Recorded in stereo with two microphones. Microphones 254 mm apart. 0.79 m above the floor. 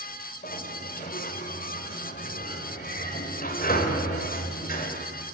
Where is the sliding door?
35° left (ahead or behind), 3 m.